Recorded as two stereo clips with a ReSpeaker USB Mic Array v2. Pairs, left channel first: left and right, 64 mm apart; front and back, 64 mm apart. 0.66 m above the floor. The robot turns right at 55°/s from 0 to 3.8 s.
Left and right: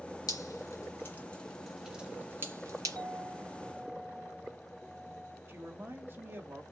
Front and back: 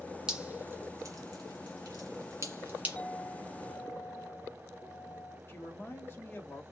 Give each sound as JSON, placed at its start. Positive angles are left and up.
{"t": 0.3, "sound": "dripping", "azimuth_deg": 105, "distance_m": 1.9}
{"t": 3.0, "sound": "a clink", "azimuth_deg": -75, "distance_m": 3.0}
{"t": 5.5, "sound": "a man speaking", "azimuth_deg": -45, "distance_m": 1.2}